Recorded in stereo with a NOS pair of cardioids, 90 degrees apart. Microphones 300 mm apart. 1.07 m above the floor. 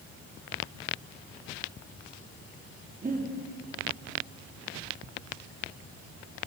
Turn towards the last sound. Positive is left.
turn(degrees=-30)